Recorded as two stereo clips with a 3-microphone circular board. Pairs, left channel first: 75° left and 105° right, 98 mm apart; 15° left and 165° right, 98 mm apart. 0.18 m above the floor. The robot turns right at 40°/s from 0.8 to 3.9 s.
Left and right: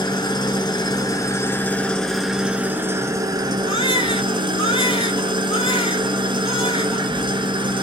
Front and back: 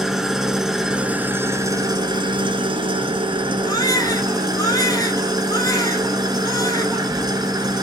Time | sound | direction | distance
0.0 | an engine running | 110° left | 0.8 m
3.7 | a baby crying | 55° left | 0.9 m